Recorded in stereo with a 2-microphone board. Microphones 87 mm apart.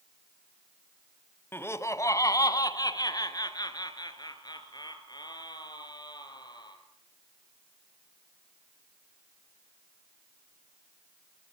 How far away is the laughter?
About 1.3 m.